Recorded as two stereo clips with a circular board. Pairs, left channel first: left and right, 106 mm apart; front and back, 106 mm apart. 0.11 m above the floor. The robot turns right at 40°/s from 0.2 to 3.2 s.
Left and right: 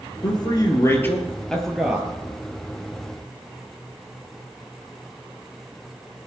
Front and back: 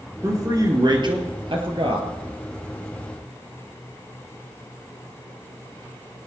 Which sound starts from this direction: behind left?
A man speaking, at 0.2 s.